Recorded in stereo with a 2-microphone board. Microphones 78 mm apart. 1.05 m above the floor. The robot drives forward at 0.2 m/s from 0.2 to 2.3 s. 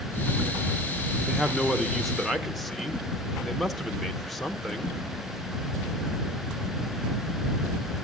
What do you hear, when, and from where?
1.3 s a man speaking: centre (ahead or behind), 0.6 m